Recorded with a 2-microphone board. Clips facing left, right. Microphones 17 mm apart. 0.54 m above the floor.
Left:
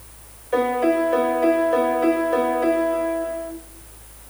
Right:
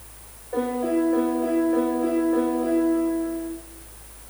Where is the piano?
60° left (ahead or behind), 0.9 m.